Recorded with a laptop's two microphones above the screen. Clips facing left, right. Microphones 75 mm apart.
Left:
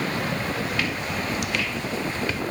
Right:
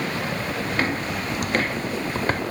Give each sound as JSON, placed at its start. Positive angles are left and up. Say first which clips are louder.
{"t": 0.7, "sound": "footsteps", "louder": "right 3 dB", "side_deg": -35}